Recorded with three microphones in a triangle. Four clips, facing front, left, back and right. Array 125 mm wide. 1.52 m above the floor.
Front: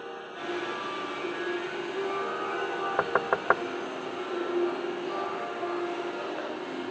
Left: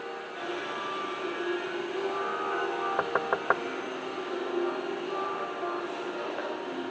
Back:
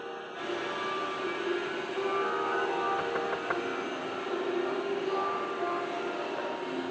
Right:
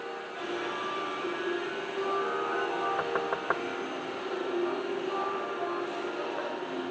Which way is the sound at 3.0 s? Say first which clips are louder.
Left 2 dB, front 4 dB; 20° left.